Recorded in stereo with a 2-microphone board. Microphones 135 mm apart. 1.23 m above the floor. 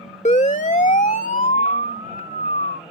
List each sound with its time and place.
0.2 s a siren: 60° left (ahead or behind); by 2.8 s 80° left